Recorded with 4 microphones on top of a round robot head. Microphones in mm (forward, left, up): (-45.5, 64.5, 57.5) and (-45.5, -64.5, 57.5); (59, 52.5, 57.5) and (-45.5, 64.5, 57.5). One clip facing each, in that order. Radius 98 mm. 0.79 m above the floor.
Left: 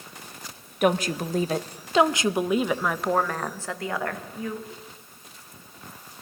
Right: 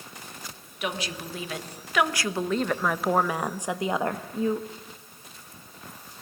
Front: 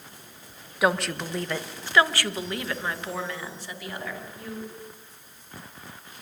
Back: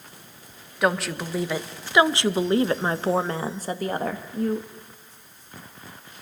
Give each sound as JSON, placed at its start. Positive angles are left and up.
{"t": 0.8, "sound": "a woman speaking", "azimuth_deg": 80, "distance_m": 1.3}